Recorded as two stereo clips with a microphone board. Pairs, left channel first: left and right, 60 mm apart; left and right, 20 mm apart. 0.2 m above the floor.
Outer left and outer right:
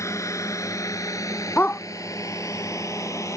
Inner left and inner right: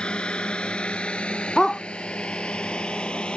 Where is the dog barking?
35° left (ahead or behind).